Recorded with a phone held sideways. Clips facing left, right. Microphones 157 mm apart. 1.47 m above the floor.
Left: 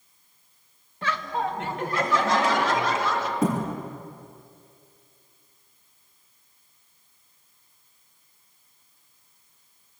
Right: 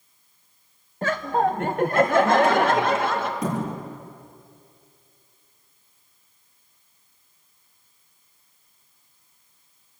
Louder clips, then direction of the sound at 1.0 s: Right 6 dB; 45° right (ahead or behind).